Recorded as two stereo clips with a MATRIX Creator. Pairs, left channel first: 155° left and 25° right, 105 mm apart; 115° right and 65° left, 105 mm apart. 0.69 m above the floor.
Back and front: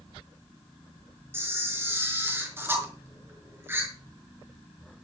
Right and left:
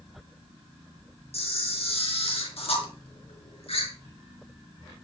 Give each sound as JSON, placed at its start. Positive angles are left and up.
{"t": 1.3, "sound": "a camera shutter", "azimuth_deg": -90, "distance_m": 4.5}